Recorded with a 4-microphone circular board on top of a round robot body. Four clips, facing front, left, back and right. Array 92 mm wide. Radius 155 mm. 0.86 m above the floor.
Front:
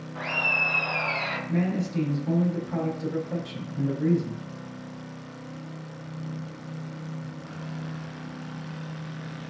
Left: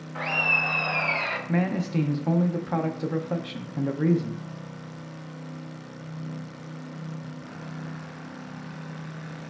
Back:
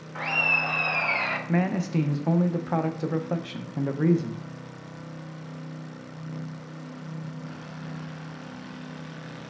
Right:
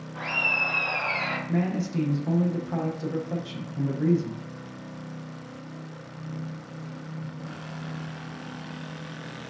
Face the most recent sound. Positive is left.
turn(degrees=155)